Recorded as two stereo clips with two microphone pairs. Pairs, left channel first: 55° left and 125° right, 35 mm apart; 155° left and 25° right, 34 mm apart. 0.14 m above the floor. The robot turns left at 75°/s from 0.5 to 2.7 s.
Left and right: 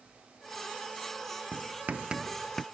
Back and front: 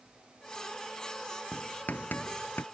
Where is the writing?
140° right; by 2.6 s 135° left.